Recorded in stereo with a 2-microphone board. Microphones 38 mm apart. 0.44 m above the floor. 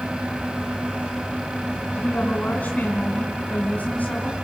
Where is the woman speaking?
45° left (ahead or behind), 3.5 m.